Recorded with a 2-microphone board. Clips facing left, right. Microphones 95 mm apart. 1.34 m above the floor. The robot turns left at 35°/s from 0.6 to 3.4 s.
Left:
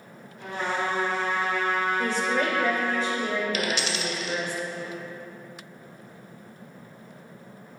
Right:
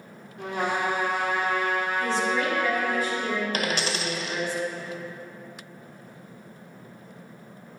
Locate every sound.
0.4 s a trumpet: 90° right, 3.5 m; by 3.0 s 175° right, 3.5 m
2.0 s a woman speaking: 65° left, 2.5 m; by 4.5 s 15° left, 2.5 m
3.5 s a dropped coin: 45° right (ahead or behind), 1.6 m